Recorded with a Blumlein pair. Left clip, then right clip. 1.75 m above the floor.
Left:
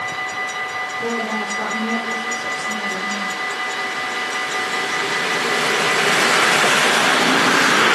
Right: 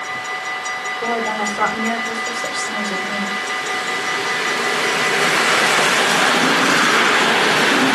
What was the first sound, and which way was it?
A woman speaking, 50° right.